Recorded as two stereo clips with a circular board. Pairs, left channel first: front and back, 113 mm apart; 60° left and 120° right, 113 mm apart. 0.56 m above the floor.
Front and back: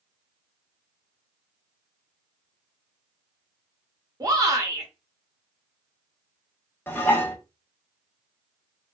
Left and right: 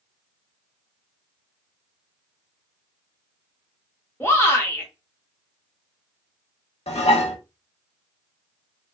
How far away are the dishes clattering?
About 0.7 m.